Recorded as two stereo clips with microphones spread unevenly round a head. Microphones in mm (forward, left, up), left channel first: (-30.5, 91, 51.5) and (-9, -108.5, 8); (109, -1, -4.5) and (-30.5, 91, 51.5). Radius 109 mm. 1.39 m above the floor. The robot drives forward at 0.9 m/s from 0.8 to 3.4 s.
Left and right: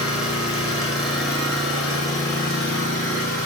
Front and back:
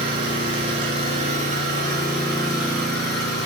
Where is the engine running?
175° left, 1.5 m; by 3.5 s straight behind, 3.5 m.